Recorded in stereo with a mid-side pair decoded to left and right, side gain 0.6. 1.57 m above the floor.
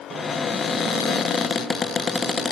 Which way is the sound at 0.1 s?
35° left.